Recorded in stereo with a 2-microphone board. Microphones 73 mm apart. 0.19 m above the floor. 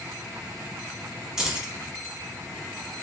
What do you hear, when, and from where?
1.4 s keys jangling: 10° right (ahead or behind), 0.9 m